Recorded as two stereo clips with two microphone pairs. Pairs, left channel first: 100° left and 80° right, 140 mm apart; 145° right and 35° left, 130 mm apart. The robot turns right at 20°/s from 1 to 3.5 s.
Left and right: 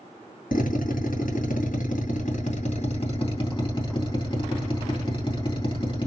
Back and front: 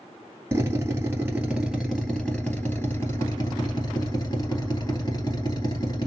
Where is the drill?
105° left, 2 m; by 6.1 s 155° left, 2 m.